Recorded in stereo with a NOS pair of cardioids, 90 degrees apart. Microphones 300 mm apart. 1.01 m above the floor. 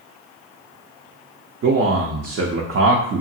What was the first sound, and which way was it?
A man speaking, 50° right.